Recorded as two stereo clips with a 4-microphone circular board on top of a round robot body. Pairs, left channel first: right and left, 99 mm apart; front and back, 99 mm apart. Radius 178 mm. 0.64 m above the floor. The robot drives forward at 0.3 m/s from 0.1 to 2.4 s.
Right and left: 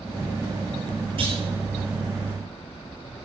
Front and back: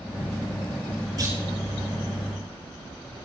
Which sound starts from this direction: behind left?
A clunk, at 1.2 s.